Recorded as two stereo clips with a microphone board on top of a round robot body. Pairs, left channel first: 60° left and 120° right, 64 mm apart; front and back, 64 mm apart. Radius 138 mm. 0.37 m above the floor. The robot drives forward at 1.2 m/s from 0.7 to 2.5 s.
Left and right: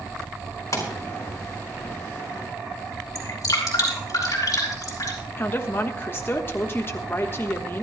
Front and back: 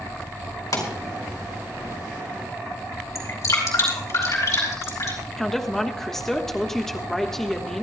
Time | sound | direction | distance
0.7 | a pop | 20° left | 4.5 m
3.1 | dripping | 35° left | 4.5 m
5.4 | a woman speaking | 85° left | 1.3 m